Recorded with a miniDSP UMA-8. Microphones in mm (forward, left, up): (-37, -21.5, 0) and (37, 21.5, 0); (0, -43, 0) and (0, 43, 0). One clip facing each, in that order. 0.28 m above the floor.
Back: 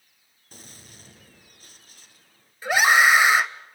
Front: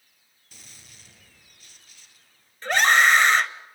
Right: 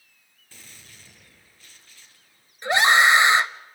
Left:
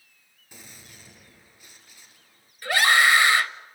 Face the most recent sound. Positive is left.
turn(degrees=-80)